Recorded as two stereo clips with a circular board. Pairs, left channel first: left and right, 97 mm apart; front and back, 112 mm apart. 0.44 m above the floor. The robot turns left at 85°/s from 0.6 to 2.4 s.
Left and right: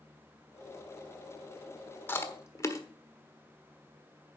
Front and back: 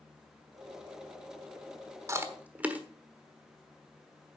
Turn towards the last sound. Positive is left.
turn(degrees=115)